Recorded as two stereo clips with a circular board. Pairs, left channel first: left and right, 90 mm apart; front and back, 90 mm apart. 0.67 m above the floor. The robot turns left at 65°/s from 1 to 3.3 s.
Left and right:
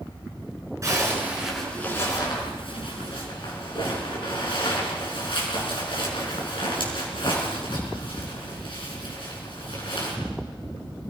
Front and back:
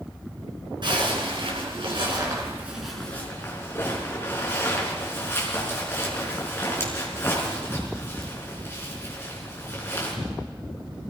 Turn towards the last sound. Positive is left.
turn(degrees=65)